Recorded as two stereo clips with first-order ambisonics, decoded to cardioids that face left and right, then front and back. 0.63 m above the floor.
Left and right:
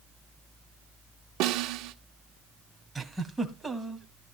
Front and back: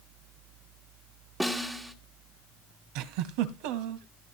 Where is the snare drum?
95° right, 1.4 m.